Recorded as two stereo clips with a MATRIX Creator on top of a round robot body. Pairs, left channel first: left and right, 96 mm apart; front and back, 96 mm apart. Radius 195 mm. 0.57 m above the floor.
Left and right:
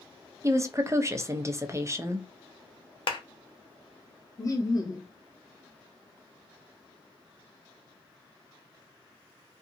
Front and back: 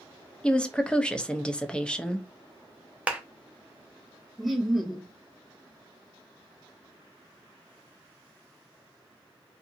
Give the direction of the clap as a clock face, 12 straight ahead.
9 o'clock.